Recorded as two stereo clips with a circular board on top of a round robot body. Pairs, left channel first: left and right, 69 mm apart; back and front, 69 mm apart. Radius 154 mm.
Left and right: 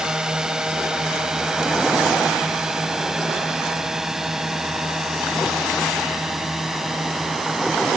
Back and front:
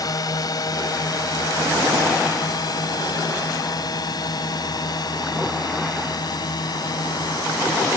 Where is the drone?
170° right; by 8.0 s 175° right.